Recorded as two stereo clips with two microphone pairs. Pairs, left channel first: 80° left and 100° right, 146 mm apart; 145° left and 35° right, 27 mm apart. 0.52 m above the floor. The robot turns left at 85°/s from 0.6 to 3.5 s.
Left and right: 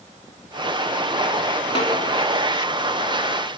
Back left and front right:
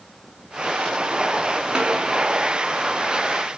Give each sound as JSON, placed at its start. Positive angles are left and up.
{"t": 1.8, "sound": "a snare drum", "azimuth_deg": 25, "distance_m": 6.0}